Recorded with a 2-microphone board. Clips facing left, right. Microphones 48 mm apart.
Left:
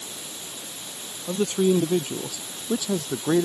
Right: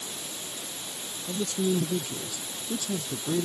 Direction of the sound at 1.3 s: 50° left (ahead or behind).